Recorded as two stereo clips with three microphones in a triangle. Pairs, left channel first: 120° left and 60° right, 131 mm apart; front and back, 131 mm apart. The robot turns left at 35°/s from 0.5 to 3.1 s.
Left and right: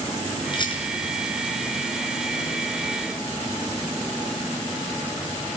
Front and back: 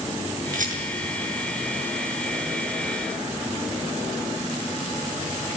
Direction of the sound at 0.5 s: 175° left.